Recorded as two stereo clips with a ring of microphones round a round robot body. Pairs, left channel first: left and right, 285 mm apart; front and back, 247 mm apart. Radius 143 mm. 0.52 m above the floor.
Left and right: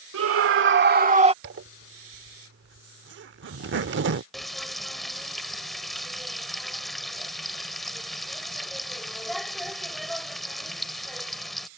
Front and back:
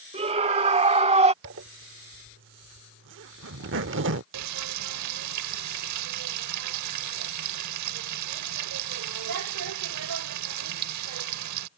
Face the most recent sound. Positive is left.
turn(degrees=180)